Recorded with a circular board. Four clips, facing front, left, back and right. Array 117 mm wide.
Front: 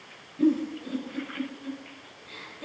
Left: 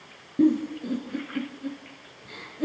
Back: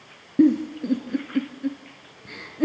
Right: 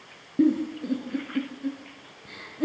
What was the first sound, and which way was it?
A giggle, 170° right.